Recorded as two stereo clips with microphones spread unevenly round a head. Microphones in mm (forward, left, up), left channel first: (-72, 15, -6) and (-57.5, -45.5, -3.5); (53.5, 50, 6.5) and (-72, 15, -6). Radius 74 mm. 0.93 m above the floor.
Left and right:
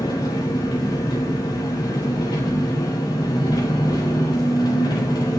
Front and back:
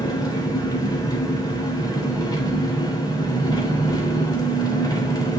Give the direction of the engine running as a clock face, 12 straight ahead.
9 o'clock.